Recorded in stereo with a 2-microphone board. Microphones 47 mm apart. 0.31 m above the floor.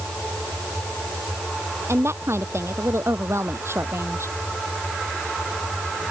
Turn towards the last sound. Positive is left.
turn(degrees=-65)  # may be behind; listen again after turning